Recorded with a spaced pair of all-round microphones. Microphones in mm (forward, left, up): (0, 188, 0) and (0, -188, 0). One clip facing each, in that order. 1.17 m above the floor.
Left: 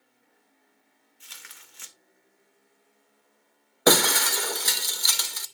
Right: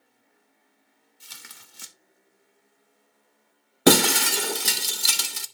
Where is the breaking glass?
45° right (ahead or behind), 0.5 m.